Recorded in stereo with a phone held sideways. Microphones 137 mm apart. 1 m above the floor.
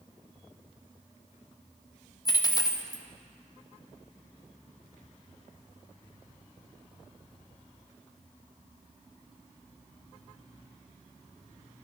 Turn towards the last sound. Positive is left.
turn(degrees=25)  # may be behind; listen again after turning